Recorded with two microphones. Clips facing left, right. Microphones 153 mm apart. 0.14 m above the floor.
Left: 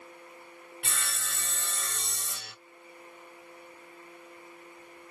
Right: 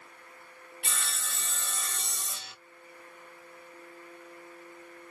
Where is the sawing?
55° left (ahead or behind), 2.5 m.